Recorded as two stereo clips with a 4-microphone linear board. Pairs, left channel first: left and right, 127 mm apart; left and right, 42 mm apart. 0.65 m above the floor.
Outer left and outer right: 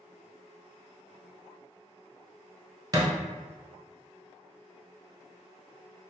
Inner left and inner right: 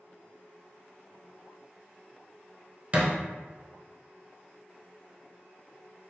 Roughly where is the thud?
Right.